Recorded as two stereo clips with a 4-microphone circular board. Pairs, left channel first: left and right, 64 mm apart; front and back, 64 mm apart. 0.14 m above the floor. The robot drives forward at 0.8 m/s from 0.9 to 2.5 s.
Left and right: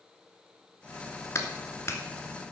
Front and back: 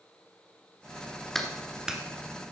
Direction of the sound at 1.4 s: 85° left.